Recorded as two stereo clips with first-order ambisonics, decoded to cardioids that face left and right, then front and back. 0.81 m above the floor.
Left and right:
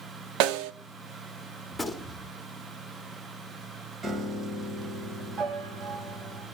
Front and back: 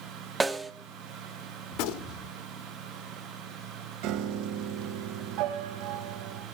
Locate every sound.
0.4 s a snare drum: 100° right, 0.9 m
1.7 s a gunshot: straight ahead, 1.5 m
4.0 s a piano: 160° right, 1.3 m